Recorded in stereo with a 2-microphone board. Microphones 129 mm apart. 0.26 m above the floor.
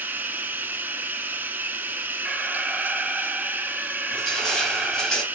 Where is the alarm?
5° right (ahead or behind), 0.7 m.